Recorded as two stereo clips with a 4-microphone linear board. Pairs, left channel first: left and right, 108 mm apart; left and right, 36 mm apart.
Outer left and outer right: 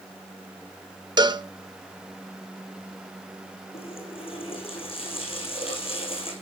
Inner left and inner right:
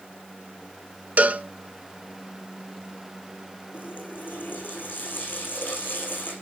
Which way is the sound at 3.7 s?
55° left (ahead or behind).